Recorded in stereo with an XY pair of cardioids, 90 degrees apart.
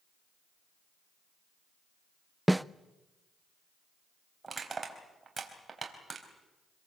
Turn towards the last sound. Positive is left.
turn(degrees=-30)